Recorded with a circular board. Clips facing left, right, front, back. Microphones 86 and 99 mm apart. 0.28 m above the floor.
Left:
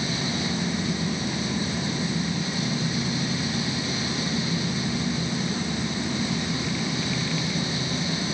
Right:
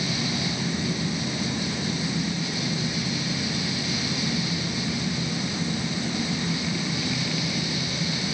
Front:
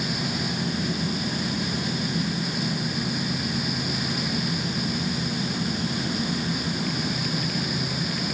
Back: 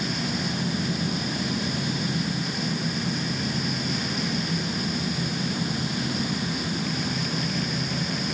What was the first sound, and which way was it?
Only background noise.